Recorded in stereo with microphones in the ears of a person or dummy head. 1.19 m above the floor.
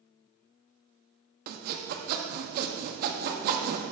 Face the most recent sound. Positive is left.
turn(degrees=-45)  # may be behind; listen again after turning